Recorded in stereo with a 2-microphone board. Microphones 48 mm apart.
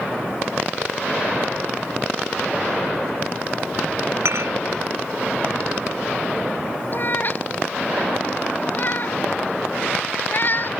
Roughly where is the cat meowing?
Left.